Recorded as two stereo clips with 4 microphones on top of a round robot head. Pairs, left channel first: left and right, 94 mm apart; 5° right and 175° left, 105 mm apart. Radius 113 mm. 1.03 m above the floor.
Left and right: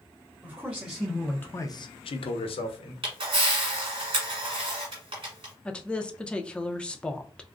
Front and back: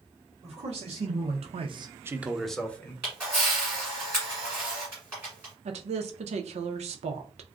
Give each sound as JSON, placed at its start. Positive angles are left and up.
{"t": 0.4, "sound": "a man speaking", "azimuth_deg": -165, "distance_m": 1.1}
{"t": 3.0, "sound": "a camera shutter", "azimuth_deg": -110, "distance_m": 1.5}
{"t": 5.7, "sound": "a woman speaking", "azimuth_deg": 170, "distance_m": 0.6}